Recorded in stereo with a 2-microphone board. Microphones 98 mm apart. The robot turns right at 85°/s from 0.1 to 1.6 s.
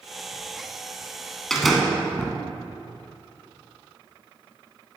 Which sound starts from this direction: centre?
A door slam, at 1.5 s.